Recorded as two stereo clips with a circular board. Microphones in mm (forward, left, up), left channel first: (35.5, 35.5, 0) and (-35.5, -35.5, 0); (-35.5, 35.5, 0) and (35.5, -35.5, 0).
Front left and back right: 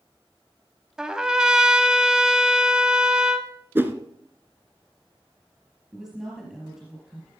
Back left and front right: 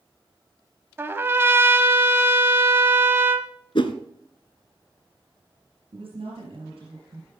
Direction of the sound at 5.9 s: 55° right.